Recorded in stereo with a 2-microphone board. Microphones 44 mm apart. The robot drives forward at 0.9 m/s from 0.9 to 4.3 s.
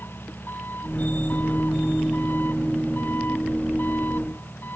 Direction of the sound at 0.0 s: 50° left (ahead or behind).